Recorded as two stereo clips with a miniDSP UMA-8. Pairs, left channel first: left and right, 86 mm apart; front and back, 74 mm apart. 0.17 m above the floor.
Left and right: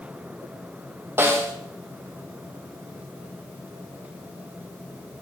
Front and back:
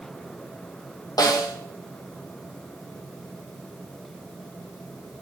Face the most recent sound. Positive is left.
turn(degrees=-25)